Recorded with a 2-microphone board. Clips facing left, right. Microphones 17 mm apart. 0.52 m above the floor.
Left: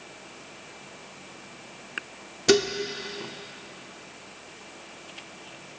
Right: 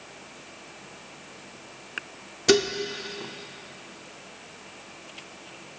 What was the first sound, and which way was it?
Dishes clattering, 10° right (ahead or behind).